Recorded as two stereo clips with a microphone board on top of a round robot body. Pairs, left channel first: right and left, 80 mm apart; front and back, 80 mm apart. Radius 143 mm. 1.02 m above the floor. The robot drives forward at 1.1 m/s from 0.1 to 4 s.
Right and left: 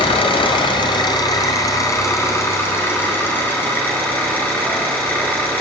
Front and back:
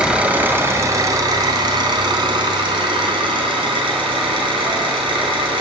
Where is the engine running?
100° right, 1.8 m; by 5.6 s 160° right, 5 m.